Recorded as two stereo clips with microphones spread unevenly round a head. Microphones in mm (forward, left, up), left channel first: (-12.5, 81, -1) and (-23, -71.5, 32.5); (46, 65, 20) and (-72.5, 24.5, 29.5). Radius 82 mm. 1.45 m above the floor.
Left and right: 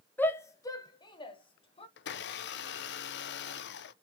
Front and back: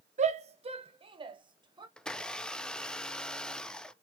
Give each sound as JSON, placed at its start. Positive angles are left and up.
{"t": 0.2, "sound": "a shout", "azimuth_deg": 165, "distance_m": 0.8}
{"t": 2.0, "sound": "a blender", "azimuth_deg": 105, "distance_m": 0.6}